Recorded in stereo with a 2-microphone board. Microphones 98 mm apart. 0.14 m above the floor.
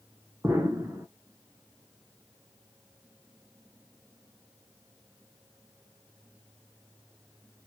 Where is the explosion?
30° right (ahead or behind), 0.6 m.